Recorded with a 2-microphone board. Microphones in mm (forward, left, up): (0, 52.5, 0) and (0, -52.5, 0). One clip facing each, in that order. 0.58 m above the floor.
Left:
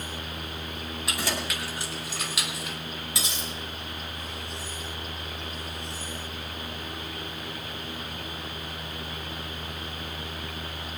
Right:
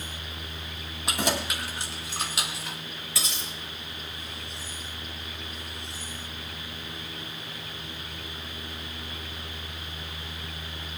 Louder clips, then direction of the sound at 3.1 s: Right 1 dB; 20° left (ahead or behind).